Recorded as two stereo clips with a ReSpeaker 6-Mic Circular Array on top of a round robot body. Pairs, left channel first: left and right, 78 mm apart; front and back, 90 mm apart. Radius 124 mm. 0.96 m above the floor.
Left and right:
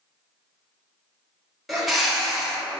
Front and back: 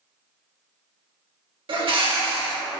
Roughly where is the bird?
Behind.